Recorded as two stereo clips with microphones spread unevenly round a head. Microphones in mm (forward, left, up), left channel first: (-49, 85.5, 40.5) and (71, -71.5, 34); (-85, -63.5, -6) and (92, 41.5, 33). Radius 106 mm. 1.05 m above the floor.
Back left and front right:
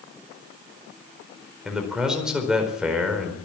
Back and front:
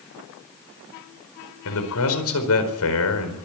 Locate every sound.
1.6 s a man speaking: 140° right, 4.5 m